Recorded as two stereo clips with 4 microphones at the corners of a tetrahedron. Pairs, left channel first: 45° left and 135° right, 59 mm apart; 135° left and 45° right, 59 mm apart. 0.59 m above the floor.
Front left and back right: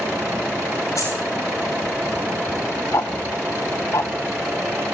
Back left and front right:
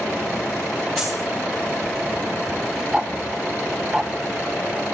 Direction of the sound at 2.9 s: 30° left.